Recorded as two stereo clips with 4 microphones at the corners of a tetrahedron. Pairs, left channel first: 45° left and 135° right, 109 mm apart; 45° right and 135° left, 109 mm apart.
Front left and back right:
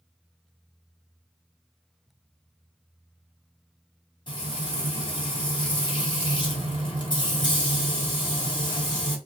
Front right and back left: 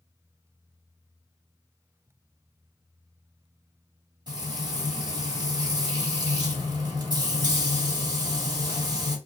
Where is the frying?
90° left, 1.5 m.